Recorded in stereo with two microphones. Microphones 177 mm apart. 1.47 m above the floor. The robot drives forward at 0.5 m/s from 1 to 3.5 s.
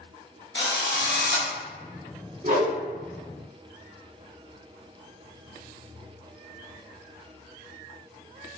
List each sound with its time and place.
0.6 s a drill: 90° left, 0.7 m; by 1.5 s 70° left (ahead or behind), 0.7 m
2.4 s a whoosh: 40° right (ahead or behind), 0.8 m; by 2.8 s 50° right (ahead or behind), 0.8 m